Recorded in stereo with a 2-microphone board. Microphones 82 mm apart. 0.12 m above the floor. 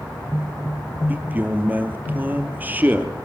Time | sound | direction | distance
1.1 | a man speaking | 20° right (ahead or behind) | 2.5 m